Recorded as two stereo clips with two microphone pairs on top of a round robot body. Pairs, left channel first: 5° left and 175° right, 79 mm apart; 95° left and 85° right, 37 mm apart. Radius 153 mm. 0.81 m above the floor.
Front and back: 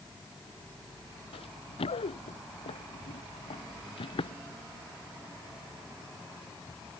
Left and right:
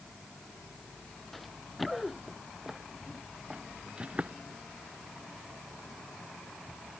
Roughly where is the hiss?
I don't hear a hiss.